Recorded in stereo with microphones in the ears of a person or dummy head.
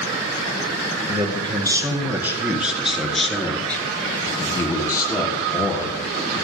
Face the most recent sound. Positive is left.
turn(degrees=25)  # may be behind; listen again after turning